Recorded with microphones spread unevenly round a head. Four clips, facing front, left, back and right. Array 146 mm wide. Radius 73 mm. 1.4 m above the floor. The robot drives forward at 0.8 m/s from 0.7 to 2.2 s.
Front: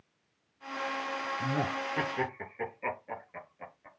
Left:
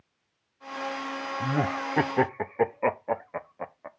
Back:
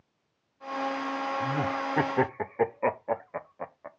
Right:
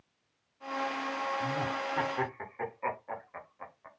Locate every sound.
1.4 s laughter: 65° left, 0.7 m; by 3.9 s 125° left, 0.7 m